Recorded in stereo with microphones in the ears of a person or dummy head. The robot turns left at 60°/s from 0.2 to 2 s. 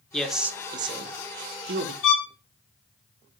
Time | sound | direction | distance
0.1 | a man speaking | 5° left (ahead or behind) | 0.6 m
2.0 | a violin | 65° left (ahead or behind) | 2.5 m